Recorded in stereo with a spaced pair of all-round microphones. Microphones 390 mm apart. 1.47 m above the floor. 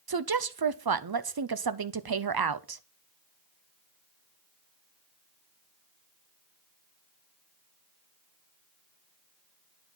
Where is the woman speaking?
65° right (ahead or behind), 0.6 m.